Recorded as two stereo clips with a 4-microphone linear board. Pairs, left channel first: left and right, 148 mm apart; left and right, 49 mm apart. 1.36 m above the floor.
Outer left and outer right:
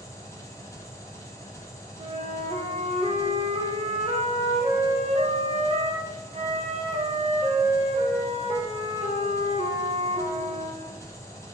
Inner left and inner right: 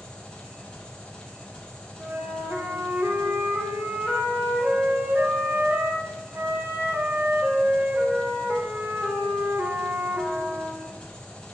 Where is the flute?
45° right (ahead or behind), 1.6 m.